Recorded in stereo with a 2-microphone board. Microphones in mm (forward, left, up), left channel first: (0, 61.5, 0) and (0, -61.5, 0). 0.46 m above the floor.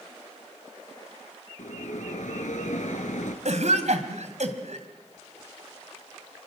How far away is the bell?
About 2.5 m.